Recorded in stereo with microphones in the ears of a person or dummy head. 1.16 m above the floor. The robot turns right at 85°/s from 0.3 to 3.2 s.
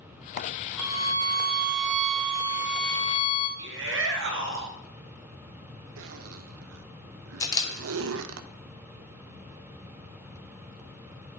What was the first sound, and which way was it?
A violin, 170° right.